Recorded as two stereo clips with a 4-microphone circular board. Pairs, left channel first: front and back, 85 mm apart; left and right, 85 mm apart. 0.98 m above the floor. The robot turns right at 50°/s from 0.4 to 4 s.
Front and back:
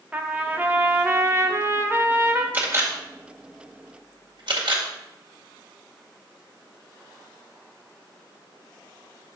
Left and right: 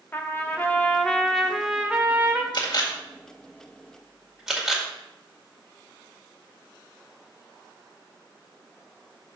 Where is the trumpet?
125° left, 0.9 m; by 2.4 s 130° right, 0.9 m.